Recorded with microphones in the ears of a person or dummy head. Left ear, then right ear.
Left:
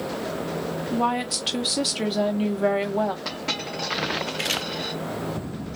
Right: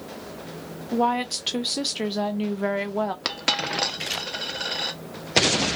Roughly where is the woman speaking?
Centre.